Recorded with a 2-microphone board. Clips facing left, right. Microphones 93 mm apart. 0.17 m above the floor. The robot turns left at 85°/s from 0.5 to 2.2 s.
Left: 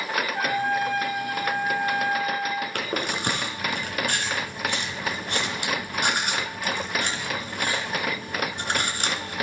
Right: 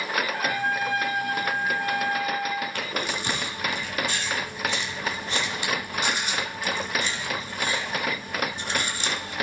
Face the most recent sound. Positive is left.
turn(degrees=55)  # may be behind; listen again after turning